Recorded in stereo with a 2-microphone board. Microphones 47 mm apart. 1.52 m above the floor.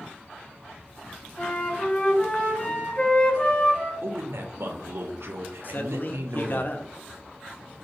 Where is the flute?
25° left (ahead or behind), 1.5 m.